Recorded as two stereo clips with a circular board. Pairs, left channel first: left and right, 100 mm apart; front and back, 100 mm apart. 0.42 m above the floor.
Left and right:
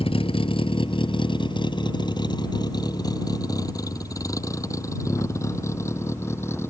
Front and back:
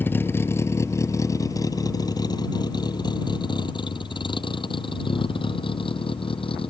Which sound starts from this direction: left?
A vehicle, at 0.0 s.